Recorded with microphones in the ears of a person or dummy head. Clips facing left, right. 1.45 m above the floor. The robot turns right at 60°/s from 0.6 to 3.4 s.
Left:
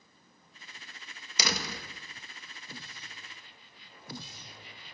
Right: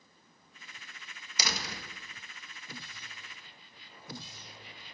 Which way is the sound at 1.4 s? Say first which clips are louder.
Left 4 dB; 60° left (ahead or behind).